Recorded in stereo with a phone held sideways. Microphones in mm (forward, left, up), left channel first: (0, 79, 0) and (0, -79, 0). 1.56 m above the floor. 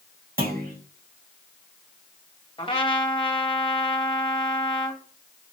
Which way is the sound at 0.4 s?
70° right (ahead or behind).